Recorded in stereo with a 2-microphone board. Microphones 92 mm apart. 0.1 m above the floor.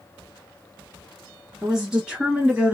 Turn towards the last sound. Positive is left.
turn(degrees=-15)  # may be behind; listen again after turning